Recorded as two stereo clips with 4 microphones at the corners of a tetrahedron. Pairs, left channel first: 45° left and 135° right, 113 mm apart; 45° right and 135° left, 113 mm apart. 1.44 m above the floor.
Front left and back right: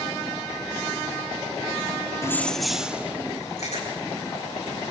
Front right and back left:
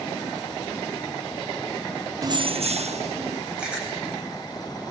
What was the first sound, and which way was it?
Keys jangling, 90° left.